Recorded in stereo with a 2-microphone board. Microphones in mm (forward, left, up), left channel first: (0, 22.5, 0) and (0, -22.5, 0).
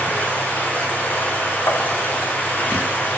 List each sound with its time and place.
0.0 s running water: 45° left (ahead or behind), 3.5 m
1.7 s tapping: 80° left, 1.5 m